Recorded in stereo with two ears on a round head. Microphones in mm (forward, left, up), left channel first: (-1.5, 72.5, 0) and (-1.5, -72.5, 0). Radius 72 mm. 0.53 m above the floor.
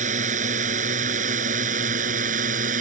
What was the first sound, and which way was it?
A drone, 50° right (ahead or behind).